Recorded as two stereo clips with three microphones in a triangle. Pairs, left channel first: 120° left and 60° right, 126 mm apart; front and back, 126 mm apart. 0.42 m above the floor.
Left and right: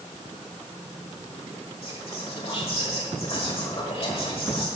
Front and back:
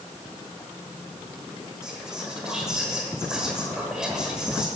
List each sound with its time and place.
1.8 s whispering: 95° left, 1.2 m